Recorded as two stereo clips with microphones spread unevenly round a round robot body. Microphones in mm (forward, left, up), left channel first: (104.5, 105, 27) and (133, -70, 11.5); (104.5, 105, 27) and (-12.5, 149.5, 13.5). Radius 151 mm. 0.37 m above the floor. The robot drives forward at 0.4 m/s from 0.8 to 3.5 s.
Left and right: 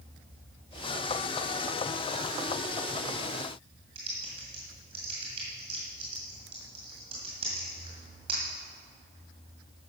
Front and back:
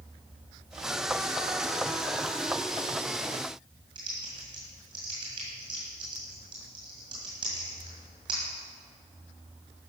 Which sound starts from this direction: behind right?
Typing on a keyboard, at 4.0 s.